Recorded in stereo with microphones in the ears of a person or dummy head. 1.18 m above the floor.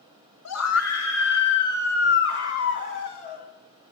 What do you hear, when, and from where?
0.5 s a scream: 80° left, 2.5 m; by 3.5 s 40° left (ahead or behind), 4 m